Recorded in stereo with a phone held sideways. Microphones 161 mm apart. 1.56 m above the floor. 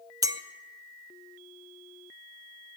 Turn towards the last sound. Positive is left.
turn(degrees=-20)  # may be behind; listen again after turning